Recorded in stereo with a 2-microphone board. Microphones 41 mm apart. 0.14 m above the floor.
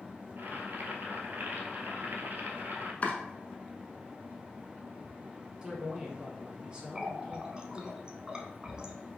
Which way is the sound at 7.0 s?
20° right (ahead or behind).